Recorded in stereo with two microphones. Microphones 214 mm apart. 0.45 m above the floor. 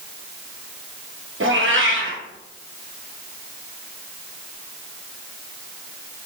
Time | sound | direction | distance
1.4 | a cat meowing | 75° right (ahead or behind) | 1.1 m